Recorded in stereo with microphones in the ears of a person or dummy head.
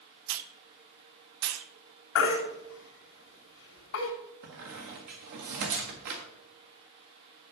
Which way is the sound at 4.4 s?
45° right (ahead or behind).